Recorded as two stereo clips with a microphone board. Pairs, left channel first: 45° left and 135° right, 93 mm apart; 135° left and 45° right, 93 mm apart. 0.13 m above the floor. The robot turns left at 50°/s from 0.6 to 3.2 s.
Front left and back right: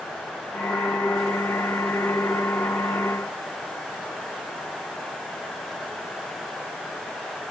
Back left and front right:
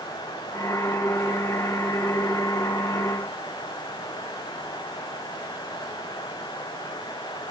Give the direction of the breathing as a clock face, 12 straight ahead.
I don't hear breathing.